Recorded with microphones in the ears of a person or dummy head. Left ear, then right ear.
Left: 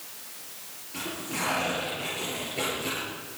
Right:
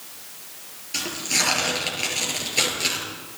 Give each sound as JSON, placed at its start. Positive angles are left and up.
{"t": 0.9, "sound": "tearing paper", "side_deg": -55, "distance_m": 7.0}